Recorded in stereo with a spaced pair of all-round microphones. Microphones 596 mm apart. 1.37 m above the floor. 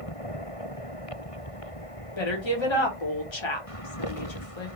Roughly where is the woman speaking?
Left.